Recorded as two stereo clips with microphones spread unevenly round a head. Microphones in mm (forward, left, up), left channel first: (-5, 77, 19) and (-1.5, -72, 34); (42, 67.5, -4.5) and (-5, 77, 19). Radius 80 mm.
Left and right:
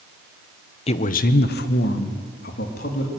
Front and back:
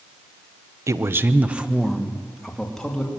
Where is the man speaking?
140° left, 1.2 m; by 3.1 s 65° left, 3.5 m.